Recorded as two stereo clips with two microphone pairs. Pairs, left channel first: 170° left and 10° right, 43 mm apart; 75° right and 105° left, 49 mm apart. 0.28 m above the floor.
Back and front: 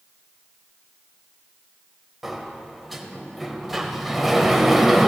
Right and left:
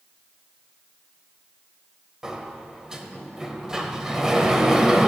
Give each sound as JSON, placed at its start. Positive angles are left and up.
{"t": 2.2, "sound": "a sliding door", "azimuth_deg": 65, "distance_m": 0.8}